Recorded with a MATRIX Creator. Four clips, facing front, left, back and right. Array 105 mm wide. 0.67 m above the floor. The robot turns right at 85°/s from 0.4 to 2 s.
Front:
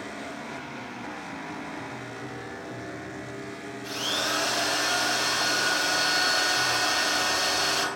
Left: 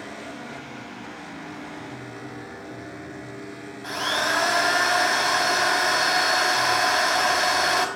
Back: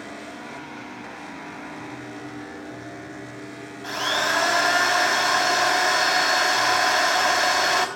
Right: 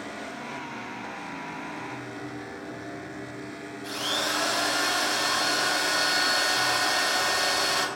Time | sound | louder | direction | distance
3.8 | a drill | left 5 dB, back 7 dB | 145° left | 4 m